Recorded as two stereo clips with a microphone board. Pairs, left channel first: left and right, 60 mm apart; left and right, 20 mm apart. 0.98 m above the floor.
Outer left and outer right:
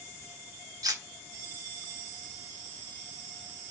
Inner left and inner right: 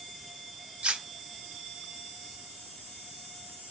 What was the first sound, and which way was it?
Cutlery clinking, 80° right.